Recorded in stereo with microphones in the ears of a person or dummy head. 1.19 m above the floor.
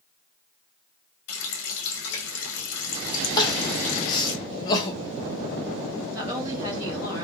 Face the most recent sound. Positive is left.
turn(degrees=-20)  # may be behind; listen again after turning